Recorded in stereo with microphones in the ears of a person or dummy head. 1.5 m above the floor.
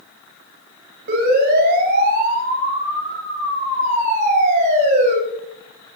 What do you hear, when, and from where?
1.1 s a siren: 55° right (ahead or behind), 10 m; by 5.2 s 40° right (ahead or behind), 9.5 m